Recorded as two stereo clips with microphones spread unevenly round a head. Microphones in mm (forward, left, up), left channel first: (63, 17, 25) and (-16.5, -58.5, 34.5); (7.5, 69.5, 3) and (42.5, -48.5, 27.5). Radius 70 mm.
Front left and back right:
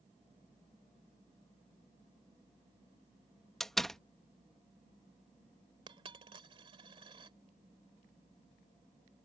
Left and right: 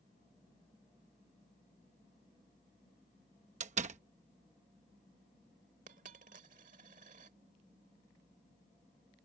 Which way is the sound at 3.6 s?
45° right.